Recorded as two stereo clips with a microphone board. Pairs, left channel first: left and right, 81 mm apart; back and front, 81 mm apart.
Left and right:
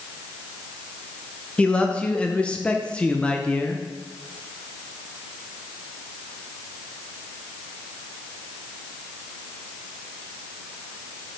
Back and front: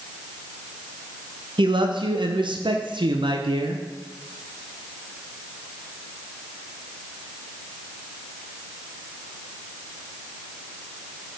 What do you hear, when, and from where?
1.6 s a man speaking: 15° left, 0.7 m